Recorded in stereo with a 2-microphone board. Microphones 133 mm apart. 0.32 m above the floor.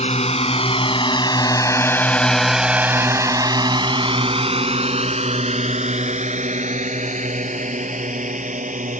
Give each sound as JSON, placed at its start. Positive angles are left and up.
{"t": 0.0, "sound": "a drone", "side_deg": 55}